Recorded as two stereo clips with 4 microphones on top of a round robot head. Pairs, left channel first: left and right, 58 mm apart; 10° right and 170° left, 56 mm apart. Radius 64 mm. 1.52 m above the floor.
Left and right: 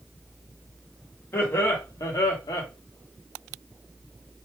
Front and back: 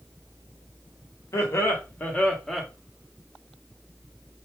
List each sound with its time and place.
1.3 s laughter: 30° left, 1.0 m; by 2.7 s 85° left, 0.8 m